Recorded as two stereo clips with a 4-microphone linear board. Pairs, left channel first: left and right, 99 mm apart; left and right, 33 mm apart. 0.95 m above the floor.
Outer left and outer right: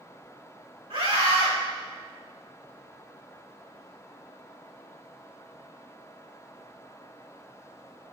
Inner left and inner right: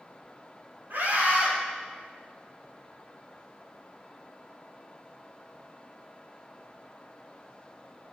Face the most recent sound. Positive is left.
turn(degrees=-70)  # may be behind; listen again after turning